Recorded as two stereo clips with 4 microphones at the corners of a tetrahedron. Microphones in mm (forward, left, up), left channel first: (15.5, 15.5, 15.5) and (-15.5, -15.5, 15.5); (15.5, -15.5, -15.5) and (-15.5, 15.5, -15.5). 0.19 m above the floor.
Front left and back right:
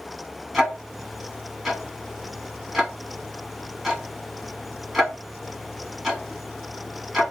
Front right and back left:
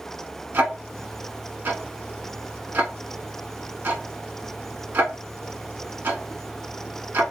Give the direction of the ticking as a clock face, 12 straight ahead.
7 o'clock.